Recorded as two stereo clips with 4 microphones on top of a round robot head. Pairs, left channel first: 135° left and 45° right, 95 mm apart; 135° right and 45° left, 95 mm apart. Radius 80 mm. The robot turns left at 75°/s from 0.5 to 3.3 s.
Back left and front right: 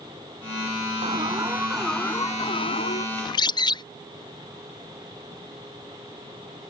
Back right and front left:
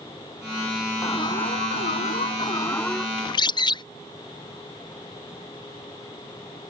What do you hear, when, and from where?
1.0 s an alarm: 75° right; by 3.1 s 130° left
3.2 s a bird: 170° right; by 3.8 s straight behind